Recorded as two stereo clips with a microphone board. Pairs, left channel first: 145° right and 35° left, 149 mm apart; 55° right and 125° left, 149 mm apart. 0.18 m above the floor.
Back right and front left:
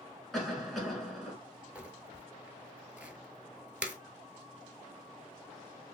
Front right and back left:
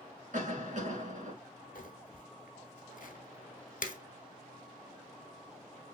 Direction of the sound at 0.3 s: 125° left.